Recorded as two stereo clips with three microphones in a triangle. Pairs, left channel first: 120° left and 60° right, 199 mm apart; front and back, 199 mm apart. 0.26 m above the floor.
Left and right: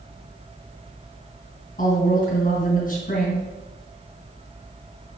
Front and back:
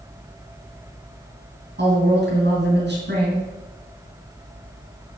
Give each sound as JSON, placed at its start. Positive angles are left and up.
{"t": 1.8, "sound": "a woman speaking", "azimuth_deg": 160, "distance_m": 3.0}